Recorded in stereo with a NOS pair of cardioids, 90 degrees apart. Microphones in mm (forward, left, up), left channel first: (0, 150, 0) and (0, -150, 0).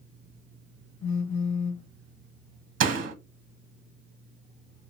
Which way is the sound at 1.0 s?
70° left.